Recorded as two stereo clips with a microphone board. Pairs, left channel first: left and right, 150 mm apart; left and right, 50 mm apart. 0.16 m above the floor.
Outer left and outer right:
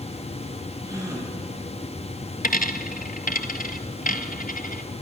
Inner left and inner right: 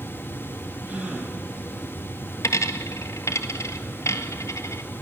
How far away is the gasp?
About 4 m.